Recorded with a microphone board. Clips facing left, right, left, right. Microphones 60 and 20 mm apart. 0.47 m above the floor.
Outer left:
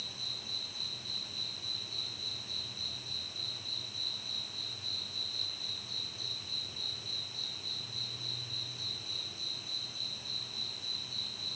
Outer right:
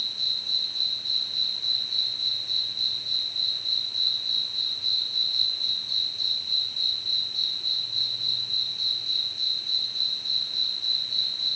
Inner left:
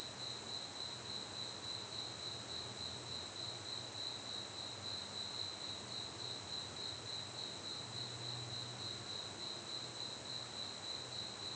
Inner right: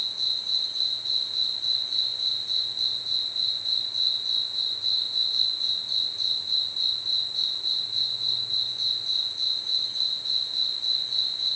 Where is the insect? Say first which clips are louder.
Outer right 9 dB, inner right 20 dB; 70° right (ahead or behind).